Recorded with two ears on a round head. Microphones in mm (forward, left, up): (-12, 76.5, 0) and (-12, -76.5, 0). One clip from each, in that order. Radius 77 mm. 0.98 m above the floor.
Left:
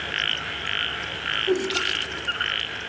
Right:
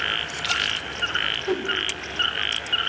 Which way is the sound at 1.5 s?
60° right (ahead or behind).